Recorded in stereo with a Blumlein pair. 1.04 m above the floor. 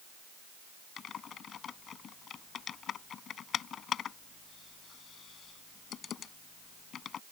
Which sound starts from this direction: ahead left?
Typing on a keyboard, at 1.0 s.